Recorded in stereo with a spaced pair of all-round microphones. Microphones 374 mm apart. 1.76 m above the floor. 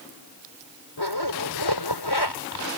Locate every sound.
1.0 s a zipper: 85° left